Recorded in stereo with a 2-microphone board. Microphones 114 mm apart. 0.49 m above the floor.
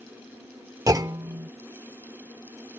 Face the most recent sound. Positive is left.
turn(degrees=-35)  # may be behind; listen again after turning